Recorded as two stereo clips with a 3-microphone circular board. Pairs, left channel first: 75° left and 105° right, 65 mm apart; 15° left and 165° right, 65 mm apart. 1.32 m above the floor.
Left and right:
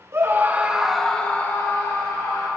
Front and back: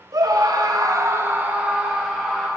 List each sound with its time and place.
0.1 s a scream: 150° right, 1.8 m; by 2.5 s 105° left, 2.5 m